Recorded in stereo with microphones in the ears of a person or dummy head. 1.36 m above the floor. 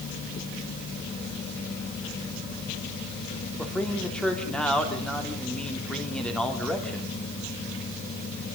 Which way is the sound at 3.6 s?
Centre (ahead or behind).